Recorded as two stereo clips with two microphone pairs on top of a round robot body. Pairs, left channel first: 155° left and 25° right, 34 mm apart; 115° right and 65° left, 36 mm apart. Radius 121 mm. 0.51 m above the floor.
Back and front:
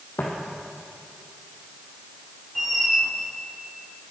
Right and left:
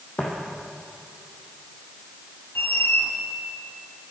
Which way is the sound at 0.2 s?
175° right.